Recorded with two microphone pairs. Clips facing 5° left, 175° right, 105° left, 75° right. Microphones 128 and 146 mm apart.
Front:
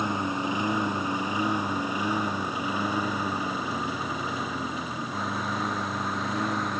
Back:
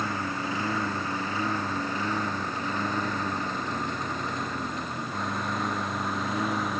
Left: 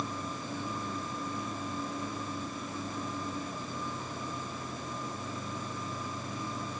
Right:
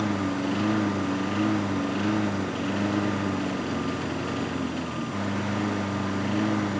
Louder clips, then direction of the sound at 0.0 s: Front 3 dB, right 12 dB; 70° right.